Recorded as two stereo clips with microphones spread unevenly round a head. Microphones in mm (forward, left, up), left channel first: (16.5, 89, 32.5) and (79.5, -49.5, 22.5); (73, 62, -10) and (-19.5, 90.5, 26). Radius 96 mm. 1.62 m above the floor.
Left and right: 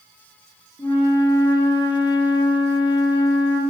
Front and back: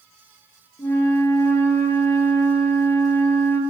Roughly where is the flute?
Ahead left.